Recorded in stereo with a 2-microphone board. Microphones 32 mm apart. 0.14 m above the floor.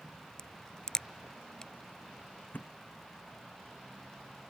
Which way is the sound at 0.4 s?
25° left (ahead or behind).